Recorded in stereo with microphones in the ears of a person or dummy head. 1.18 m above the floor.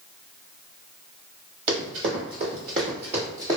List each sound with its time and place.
1.7 s running footsteps: 50° right (ahead or behind), 1.7 m; by 3.6 s 15° right (ahead or behind), 1.3 m